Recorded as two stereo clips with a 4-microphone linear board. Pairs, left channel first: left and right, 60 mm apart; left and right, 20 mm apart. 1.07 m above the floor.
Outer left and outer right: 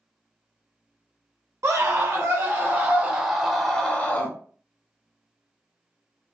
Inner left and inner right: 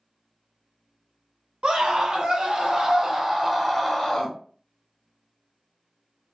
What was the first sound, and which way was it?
A scream, 50° right (ahead or behind).